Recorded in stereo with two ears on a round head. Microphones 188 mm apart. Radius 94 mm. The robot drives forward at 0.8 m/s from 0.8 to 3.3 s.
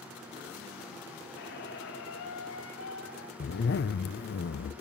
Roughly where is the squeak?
Left.